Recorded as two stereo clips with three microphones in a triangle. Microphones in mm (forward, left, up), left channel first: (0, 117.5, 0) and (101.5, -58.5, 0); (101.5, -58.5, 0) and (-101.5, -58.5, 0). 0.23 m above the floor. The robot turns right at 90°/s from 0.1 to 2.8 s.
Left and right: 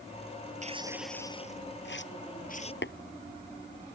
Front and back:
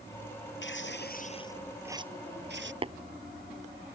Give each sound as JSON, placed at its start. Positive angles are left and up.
{"t": 0.6, "sound": "tearing paper", "azimuth_deg": -10}
{"t": 2.8, "sound": "tapping", "azimuth_deg": 120}